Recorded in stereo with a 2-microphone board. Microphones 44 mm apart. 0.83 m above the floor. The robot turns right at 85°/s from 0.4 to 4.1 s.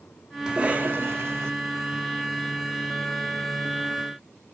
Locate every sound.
0.5 s a cough: 165° right, 2.0 m; by 1.5 s 75° right, 2.0 m